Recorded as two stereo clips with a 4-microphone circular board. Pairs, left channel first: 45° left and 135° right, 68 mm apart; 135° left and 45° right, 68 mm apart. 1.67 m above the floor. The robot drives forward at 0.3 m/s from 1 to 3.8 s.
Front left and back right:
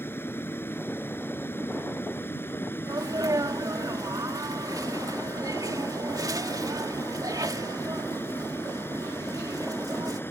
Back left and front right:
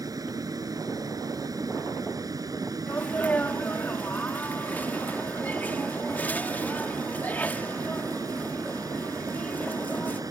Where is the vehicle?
10° right.